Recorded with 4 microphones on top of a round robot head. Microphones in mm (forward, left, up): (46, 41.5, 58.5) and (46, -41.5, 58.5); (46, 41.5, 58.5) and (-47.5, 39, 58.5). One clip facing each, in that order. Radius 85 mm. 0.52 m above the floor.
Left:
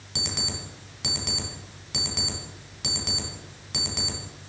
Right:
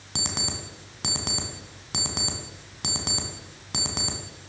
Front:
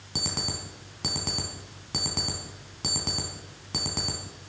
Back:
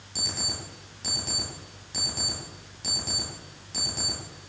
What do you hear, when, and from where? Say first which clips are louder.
0.1 s an alarm clock: right 1 dB, front 3 dB; 40° right, 3 m